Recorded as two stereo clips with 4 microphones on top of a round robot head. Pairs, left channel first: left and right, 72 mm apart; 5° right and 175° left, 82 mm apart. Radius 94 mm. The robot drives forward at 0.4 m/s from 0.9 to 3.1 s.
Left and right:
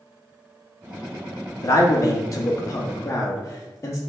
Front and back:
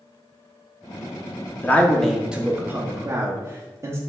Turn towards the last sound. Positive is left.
turn(degrees=135)